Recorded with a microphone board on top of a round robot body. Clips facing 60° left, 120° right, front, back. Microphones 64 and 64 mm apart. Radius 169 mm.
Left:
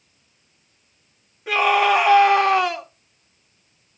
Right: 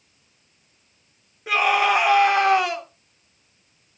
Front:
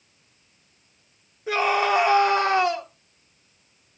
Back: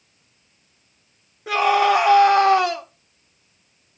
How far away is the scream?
About 3 m.